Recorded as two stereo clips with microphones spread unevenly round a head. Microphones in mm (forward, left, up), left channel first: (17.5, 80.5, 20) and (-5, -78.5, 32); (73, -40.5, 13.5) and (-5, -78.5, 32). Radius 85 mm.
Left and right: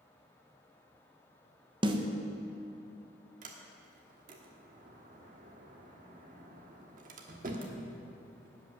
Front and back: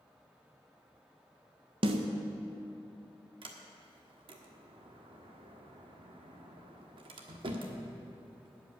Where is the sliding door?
140° right, 1.3 m.